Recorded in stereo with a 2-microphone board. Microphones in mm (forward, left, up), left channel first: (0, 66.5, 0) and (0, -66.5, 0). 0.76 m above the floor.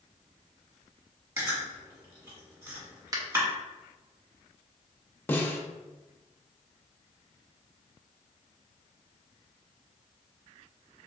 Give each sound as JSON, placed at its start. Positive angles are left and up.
{"t": 1.4, "sound": "chewing", "side_deg": -20, "distance_m": 1.5}
{"t": 3.1, "sound": "a finger snap", "side_deg": -25, "distance_m": 0.6}
{"t": 5.3, "sound": "a snare drum", "side_deg": 15, "distance_m": 0.5}